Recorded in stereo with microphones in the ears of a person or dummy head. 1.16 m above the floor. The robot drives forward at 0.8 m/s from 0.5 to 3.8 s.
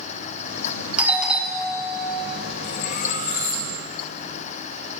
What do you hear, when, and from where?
1.0 s a doorbell: 5° right (ahead or behind), 0.7 m
2.6 s cutlery clinking: 55° left (ahead or behind), 1.0 m; by 3.7 s 30° left (ahead or behind), 1.6 m